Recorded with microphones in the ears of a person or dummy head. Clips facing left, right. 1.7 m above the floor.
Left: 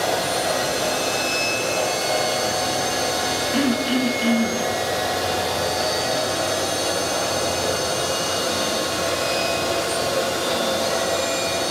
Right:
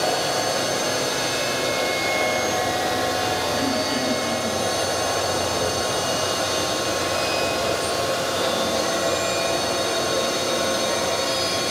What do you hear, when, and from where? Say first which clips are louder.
3.5 s throat clearing: left 3 dB; 45° left (ahead or behind), 1.6 m